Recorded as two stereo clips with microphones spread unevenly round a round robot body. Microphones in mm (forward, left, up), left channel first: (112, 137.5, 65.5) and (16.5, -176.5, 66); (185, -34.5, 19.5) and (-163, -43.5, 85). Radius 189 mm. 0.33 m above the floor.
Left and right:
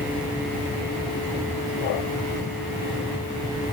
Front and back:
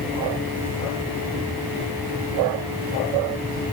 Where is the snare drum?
No snare drum in this recording.